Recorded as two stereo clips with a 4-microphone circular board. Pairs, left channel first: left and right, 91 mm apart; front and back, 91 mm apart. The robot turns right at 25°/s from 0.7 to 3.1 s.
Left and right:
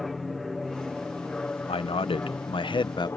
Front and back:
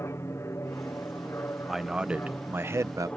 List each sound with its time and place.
0.0 s an aircraft: 5° left; by 3.2 s 65° left
1.7 s a man speaking: 90° left; by 3.1 s 125° left